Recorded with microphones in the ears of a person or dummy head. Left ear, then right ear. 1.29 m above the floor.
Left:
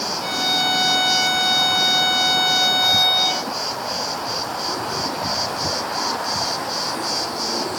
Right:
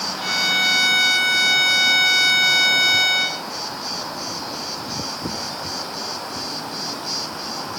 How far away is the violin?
About 4.5 m.